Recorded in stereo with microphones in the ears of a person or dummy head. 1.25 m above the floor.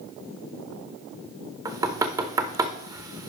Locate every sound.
1.6 s knocking: 25° right (ahead or behind), 0.6 m